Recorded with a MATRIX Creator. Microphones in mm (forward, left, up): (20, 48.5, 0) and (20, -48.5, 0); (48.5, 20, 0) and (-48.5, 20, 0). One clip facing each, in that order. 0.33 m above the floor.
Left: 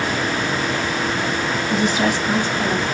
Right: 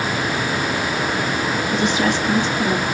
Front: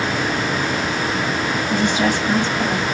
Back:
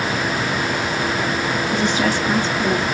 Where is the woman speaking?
65° left, 1.9 m; by 2.9 s 60° left, 2.5 m.